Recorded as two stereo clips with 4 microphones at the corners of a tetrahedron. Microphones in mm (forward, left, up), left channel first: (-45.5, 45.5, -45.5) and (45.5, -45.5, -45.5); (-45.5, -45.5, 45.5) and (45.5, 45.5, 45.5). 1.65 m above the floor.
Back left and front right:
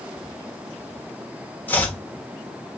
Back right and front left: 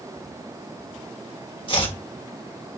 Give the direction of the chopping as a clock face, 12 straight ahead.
5 o'clock.